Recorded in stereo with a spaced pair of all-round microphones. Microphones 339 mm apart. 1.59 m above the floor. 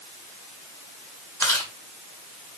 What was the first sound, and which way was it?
Chewing, 10° left (ahead or behind).